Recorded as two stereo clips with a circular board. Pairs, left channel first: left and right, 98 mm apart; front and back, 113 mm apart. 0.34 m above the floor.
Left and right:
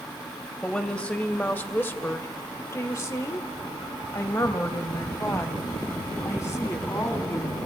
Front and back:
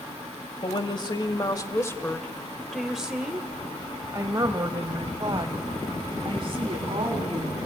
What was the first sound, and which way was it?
A woman speaking, 10° left.